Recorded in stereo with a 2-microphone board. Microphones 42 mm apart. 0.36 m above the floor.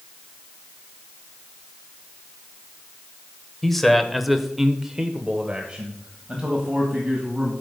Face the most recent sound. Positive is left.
turn(degrees=-15)  # may be behind; listen again after turning